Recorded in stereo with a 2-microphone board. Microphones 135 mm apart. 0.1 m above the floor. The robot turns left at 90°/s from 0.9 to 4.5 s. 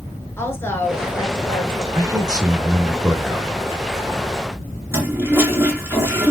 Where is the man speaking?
25° right (ahead or behind), 1.2 m; by 3.5 s 10° left (ahead or behind), 1.2 m.